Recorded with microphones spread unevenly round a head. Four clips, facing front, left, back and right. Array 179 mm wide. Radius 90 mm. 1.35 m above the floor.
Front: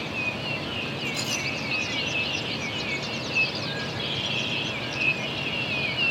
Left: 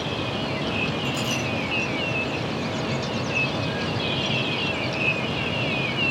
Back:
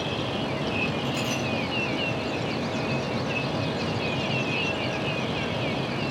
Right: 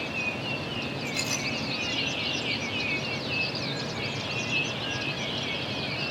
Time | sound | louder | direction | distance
1.0 | a clink | left 6 dB, back 5 dB | 140° left | 8.5 m